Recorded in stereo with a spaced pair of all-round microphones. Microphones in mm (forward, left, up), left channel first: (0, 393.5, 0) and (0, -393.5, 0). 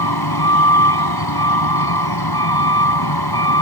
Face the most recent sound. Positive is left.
turn(degrees=30)  # may be behind; listen again after turning